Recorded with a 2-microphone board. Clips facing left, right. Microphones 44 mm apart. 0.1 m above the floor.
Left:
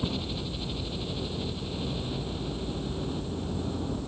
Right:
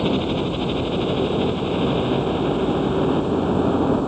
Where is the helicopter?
50° right (ahead or behind).